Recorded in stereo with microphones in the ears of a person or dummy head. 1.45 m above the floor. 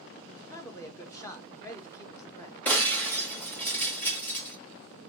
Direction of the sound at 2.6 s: 10° left (ahead or behind).